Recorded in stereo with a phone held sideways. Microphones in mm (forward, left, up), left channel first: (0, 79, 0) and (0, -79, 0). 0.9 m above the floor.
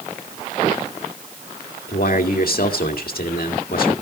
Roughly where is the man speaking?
Left.